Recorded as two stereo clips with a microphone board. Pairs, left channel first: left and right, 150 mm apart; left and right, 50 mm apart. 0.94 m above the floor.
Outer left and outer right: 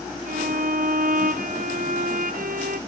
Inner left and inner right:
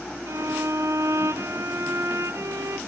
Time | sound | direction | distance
0.3 | a violin | 65° right (ahead or behind) | 0.5 m